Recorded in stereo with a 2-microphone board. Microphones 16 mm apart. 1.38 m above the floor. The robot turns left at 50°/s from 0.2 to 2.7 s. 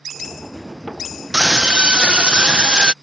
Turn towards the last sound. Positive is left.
turn(degrees=-120)